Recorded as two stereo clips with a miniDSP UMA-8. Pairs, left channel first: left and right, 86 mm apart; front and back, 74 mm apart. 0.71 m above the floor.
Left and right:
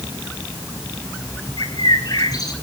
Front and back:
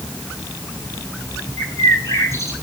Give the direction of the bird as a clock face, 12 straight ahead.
10 o'clock.